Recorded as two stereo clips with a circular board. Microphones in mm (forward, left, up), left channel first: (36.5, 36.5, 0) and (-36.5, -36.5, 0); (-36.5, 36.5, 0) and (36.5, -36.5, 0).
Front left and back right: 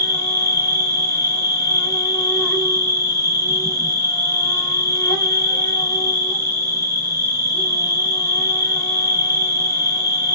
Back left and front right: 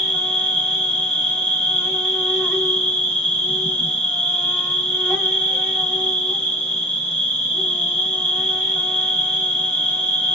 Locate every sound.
0.0 s an insect: 50° left, 1.7 m